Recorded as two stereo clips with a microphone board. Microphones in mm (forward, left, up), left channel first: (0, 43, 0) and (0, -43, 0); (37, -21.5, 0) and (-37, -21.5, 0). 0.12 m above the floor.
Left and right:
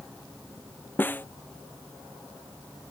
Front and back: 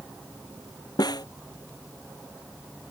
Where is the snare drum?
25° left.